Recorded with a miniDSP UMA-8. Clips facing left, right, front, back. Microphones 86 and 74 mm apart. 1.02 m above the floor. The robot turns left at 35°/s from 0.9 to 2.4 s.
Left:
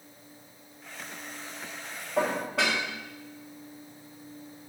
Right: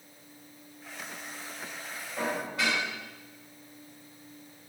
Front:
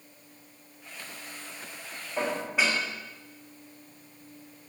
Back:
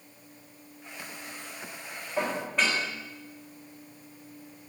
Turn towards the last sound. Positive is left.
turn(degrees=85)